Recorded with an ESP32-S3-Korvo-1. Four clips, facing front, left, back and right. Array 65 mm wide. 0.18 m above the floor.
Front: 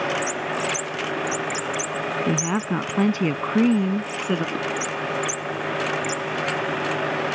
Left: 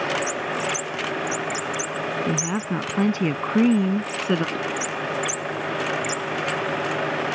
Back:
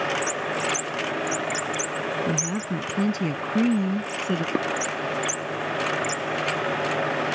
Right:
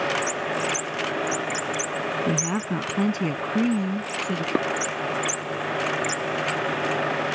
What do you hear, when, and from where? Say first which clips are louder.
2.3 s a woman speaking: even, front 4 dB; 10° right; by 4.5 s 75° left
4.5 s dishes clattering: right 4 dB, back 2 dB; 115° right